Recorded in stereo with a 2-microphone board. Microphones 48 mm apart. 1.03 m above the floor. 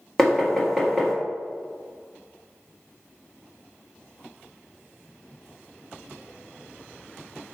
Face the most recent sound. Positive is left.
turn(degrees=5)  # may be behind; listen again after turning